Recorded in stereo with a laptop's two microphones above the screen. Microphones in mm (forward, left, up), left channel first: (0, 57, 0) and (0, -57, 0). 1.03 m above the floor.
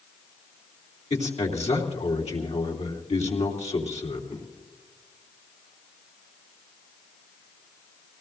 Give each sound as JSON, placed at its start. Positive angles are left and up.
{"t": 1.1, "sound": "a man speaking", "side_deg": 75, "distance_m": 3.0}